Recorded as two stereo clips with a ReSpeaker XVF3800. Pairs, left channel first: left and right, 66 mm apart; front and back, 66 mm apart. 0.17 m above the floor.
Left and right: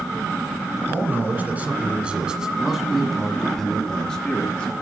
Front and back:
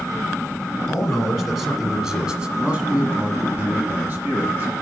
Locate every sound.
0.9 s a man speaking: 85° right, 1.6 m; by 4.7 s 145° left, 1.8 m